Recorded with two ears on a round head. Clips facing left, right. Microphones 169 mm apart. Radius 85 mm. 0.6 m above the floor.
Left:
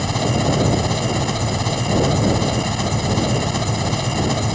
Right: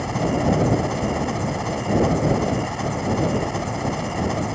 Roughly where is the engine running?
Left.